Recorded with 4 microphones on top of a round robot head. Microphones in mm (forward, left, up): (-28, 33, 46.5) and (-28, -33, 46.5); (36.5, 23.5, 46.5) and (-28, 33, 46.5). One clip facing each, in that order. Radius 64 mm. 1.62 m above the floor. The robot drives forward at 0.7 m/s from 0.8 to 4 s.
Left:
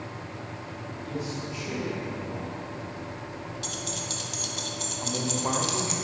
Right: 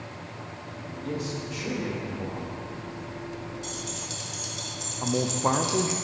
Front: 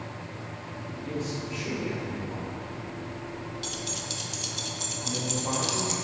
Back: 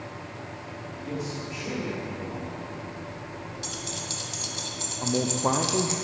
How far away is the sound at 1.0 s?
About 3.5 m.